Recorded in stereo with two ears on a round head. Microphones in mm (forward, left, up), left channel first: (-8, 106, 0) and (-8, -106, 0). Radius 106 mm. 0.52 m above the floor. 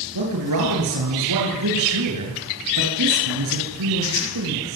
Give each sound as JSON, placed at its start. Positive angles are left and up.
{"t": 0.1, "sound": "a man speaking", "side_deg": -85, "distance_m": 9.0}